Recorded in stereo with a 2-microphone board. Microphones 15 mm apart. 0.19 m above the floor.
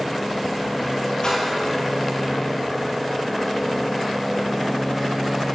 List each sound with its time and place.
1.2 s a splash: 55° left (ahead or behind), 4 m